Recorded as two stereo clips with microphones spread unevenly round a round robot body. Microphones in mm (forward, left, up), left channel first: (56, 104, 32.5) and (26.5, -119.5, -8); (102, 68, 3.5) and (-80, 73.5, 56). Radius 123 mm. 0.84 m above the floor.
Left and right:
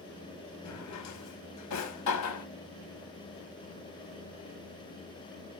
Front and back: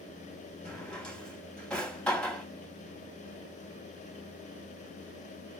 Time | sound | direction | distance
0.7 | a drawer | 85° left | 0.8 m